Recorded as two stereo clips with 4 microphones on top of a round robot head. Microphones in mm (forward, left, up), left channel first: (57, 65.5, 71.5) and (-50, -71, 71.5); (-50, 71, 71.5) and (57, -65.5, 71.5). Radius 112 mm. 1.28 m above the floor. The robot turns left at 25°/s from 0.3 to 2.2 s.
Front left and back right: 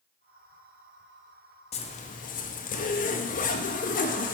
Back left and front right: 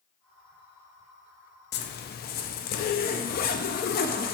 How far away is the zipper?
About 0.6 m.